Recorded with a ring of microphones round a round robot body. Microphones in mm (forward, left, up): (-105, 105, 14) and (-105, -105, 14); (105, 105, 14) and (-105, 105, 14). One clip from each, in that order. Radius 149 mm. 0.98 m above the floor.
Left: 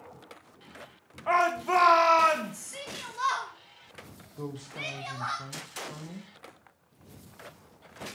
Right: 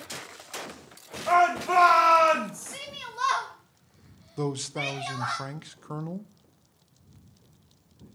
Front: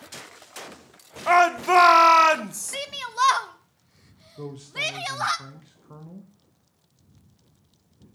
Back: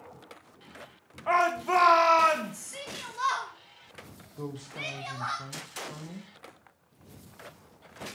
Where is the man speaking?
90° right, 0.5 m.